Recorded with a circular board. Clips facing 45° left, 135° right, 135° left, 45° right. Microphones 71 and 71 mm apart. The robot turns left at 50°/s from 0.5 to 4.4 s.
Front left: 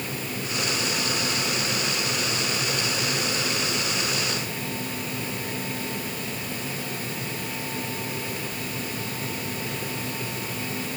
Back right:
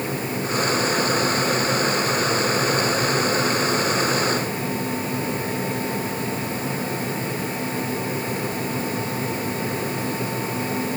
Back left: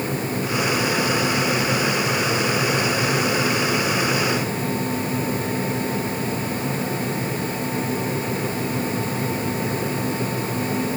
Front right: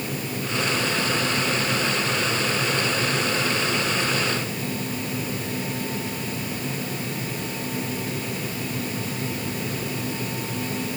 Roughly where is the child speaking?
I don't hear a child speaking.